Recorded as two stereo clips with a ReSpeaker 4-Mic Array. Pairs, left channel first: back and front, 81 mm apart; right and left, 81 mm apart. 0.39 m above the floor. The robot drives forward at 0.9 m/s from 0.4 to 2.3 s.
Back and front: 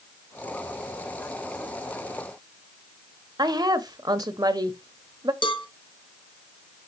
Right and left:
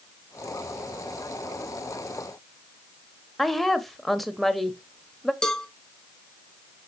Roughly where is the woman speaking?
Ahead.